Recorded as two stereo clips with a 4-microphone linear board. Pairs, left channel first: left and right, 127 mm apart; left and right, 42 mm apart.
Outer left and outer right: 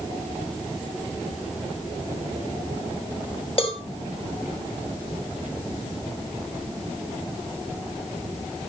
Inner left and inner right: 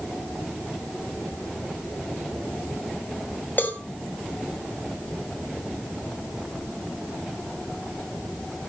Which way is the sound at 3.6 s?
45° left (ahead or behind).